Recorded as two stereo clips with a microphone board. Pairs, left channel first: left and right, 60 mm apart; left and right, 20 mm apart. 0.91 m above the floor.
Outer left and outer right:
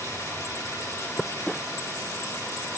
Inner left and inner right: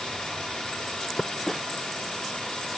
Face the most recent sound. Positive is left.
turn(degrees=60)  # may be behind; listen again after turning